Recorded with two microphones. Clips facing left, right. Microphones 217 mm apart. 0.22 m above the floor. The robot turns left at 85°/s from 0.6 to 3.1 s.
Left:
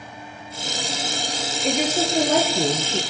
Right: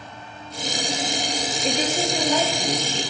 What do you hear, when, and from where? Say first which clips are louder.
1.6 s a woman speaking: left 3 dB; straight behind, 4 m; by 3.0 s 65° left, 4 m